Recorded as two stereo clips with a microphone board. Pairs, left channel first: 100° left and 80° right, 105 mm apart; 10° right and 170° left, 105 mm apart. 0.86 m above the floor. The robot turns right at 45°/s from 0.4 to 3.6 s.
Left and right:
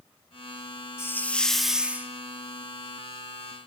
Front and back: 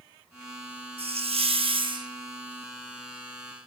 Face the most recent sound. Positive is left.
turn(degrees=-80)